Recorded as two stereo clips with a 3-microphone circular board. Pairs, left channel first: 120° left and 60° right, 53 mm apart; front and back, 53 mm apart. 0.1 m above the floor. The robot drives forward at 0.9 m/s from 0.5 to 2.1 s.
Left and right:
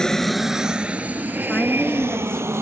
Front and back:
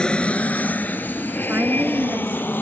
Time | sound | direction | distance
0.0 | an aircraft | 50° left | ?
1.5 | a woman speaking | 170° left | ?